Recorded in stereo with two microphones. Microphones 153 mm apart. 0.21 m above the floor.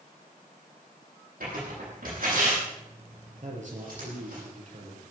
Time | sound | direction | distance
1.4 | tearing paper | 75° right (ahead or behind) | 9.5 m
3.4 | a man speaking | 50° right (ahead or behind) | 4.5 m